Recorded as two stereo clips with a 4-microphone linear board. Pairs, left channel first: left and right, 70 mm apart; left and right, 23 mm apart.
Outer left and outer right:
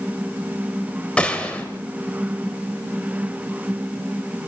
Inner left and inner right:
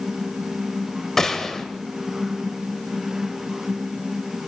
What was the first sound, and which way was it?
A gunshot, 15° left (ahead or behind).